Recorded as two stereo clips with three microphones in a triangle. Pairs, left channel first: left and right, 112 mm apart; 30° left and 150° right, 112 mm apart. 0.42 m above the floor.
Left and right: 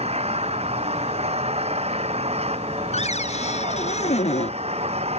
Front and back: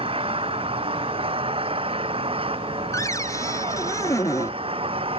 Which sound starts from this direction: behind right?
An engine running, at 0.0 s.